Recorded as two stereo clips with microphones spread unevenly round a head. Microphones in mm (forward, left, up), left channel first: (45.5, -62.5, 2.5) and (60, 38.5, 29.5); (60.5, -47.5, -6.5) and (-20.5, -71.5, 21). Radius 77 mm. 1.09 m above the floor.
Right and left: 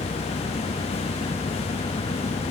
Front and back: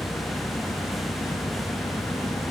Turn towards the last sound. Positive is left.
turn(degrees=-45)